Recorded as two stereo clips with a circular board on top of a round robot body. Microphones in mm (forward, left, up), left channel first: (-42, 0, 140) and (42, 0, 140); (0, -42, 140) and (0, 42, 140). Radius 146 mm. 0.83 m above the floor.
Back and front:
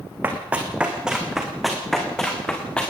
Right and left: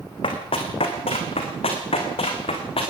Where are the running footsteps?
70° right, 3 m; by 2.9 s 100° right, 4 m.